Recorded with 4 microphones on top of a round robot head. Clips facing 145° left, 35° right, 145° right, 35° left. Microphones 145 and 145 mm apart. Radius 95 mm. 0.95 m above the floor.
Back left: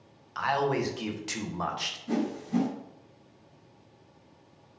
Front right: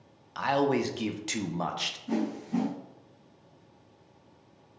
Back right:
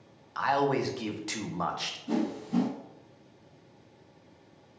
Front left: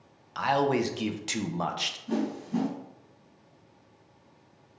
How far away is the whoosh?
About 1.8 m.